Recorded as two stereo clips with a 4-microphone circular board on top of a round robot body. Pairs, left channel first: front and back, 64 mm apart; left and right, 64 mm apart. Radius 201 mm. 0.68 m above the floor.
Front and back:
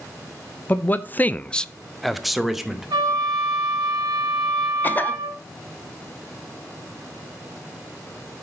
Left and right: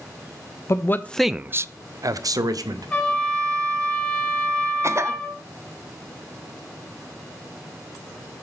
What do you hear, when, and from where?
0.7 s a man speaking: 60° left, 0.6 m; by 2.9 s 95° right, 1.2 m
2.9 s a trumpet: 165° left, 1.8 m
4.8 s a cough: 60° right, 0.7 m